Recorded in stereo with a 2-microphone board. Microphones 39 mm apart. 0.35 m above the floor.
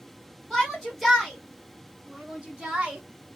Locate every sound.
0.5 s a shout: 10° left (ahead or behind), 2.0 m; by 3.0 s 30° right (ahead or behind), 1.7 m